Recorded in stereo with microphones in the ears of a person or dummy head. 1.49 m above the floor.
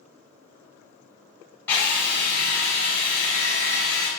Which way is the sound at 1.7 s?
10° left (ahead or behind).